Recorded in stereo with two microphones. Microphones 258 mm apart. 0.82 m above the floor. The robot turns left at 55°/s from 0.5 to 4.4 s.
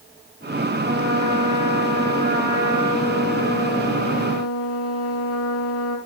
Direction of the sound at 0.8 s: 45° right.